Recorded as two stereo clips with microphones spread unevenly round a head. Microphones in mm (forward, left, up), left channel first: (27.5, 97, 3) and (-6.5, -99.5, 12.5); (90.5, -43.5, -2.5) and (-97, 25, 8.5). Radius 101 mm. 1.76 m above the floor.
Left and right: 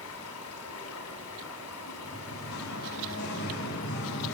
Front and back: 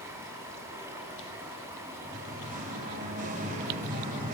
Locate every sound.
0.0 s running water: 85° left, 4 m
2.0 s singing: 110° left, 2.5 m